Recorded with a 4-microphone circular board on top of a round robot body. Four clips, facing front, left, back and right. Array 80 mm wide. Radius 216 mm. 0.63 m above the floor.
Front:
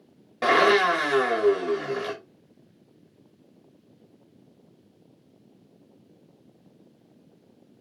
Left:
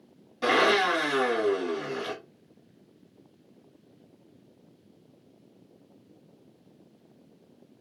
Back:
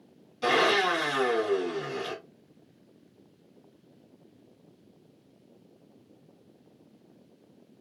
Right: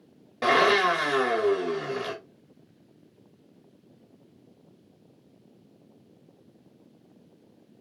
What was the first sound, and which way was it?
A blender, 35° right.